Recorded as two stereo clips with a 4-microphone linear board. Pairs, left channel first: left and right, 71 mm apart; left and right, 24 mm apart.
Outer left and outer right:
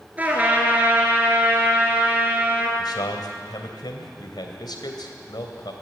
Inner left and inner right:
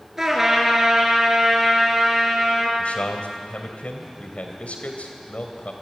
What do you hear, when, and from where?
0.2 s a trumpet: 20° right (ahead or behind), 3.5 m
2.8 s a man speaking: 80° left, 3 m